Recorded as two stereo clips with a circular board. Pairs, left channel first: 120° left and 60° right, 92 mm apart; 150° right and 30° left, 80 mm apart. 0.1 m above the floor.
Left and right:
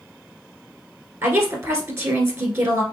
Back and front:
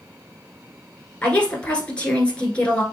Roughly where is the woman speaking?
Right.